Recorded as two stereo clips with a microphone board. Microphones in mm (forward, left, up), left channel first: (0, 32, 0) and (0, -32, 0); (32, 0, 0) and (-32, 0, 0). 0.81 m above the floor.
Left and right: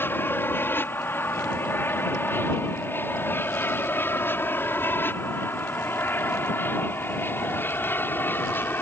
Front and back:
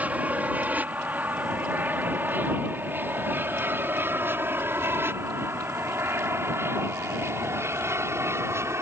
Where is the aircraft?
125° left; by 8.8 s 140° left.